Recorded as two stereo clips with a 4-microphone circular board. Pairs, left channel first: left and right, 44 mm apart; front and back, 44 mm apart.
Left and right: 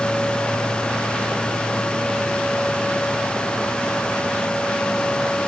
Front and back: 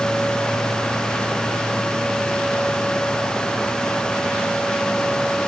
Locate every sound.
Only background noise.